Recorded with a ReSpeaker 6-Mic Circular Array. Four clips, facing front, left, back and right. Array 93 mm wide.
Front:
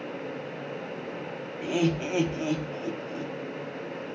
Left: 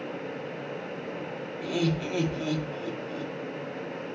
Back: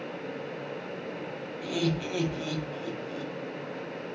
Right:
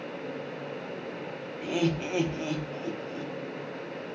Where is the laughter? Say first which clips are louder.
Even, front 4 dB; 30° right, 0.5 m.